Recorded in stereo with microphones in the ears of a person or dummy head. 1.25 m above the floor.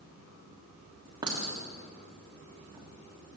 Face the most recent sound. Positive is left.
turn(degrees=-20)  # may be behind; listen again after turning